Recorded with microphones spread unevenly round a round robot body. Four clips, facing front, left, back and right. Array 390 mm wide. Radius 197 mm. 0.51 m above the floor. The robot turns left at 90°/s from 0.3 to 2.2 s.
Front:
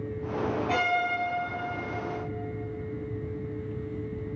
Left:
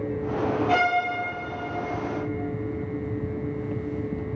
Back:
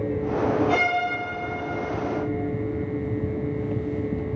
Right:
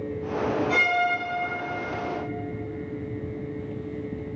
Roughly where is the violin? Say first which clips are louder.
Left 3 dB, back 4 dB; ahead left.